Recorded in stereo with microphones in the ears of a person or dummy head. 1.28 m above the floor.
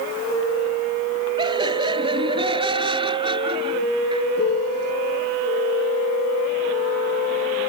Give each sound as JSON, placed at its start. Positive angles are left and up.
{"t": 1.4, "sound": "laughter", "side_deg": -25}
{"t": 4.4, "sound": "a piano", "side_deg": 60}